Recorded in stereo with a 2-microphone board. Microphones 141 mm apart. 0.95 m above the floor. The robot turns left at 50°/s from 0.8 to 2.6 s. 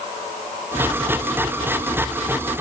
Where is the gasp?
No gasp in this recording.